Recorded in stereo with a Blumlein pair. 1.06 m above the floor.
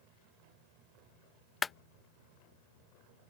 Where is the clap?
15° left.